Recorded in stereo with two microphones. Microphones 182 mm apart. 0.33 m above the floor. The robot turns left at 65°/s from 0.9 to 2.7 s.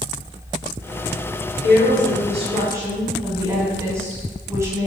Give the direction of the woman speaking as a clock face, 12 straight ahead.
3 o'clock.